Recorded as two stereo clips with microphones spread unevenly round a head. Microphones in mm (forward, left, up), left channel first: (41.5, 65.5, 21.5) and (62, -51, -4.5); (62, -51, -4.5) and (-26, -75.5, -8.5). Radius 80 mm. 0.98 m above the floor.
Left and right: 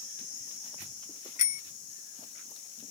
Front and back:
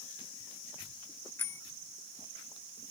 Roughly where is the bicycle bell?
Left.